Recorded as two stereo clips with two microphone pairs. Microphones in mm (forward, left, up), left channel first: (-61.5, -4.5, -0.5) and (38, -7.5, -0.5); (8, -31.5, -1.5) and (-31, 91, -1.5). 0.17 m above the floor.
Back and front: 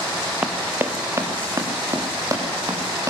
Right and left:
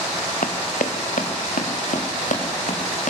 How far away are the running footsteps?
About 2 m.